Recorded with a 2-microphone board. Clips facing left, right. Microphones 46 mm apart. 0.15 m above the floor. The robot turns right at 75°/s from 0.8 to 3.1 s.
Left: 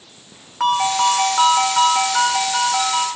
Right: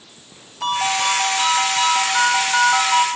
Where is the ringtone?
90° left, 6 m; by 3.1 s 100° right, 6 m.